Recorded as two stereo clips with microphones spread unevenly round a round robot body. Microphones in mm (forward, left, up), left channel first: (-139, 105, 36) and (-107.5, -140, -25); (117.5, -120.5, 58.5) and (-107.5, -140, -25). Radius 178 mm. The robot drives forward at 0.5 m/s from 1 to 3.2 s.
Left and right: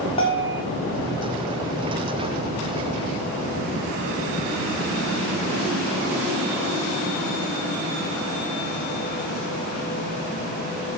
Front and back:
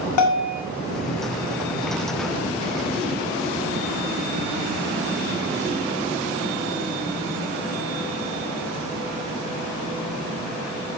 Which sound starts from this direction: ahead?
A bell, at 0.2 s.